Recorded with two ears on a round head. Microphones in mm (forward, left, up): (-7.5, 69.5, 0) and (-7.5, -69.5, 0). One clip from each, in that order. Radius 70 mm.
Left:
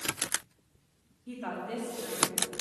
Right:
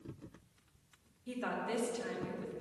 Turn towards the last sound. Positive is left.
turn(degrees=-70)  # may be behind; listen again after turning